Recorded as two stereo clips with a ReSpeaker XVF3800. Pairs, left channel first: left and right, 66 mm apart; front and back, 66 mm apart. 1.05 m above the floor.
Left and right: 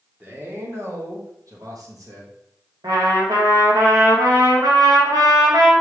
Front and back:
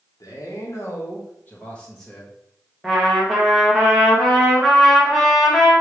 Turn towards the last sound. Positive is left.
turn(degrees=-85)